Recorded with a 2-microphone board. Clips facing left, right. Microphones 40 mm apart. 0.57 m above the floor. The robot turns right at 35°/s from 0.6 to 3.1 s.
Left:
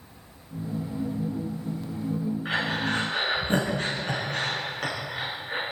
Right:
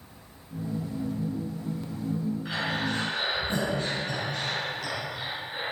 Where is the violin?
I don't hear a violin.